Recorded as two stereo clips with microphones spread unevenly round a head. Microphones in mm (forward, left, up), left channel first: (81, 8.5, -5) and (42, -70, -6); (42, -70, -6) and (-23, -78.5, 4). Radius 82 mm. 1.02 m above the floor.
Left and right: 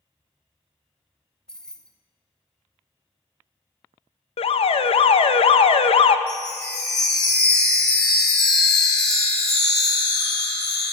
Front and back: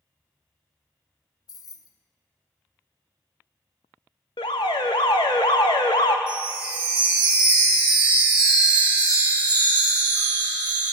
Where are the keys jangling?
20° right, 0.9 m.